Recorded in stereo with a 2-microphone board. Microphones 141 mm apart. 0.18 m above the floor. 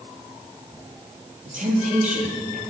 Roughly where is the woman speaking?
Right.